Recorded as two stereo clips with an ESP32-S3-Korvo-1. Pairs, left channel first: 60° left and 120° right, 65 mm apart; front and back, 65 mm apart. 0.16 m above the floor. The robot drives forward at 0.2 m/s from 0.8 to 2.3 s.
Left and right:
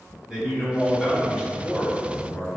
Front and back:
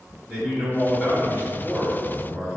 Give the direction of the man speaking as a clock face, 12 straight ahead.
5 o'clock.